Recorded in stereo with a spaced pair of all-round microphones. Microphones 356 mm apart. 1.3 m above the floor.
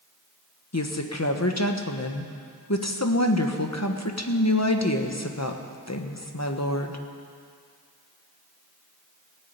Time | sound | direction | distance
0.7 | a woman speaking | 45° left (ahead or behind) | 1.2 m